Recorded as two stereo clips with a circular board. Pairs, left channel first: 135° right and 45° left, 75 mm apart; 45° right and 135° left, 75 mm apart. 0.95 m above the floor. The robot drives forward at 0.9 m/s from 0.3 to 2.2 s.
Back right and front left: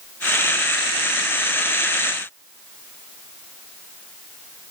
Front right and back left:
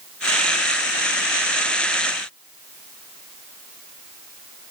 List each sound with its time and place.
Only background noise.